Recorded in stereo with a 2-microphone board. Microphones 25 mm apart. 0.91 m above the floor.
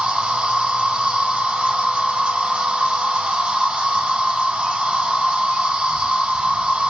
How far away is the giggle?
I don't hear a giggle.